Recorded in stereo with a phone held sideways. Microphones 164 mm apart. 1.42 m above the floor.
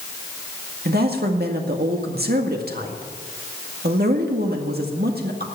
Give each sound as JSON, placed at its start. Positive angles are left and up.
{"t": 0.8, "sound": "a woman speaking", "side_deg": -70, "distance_m": 1.9}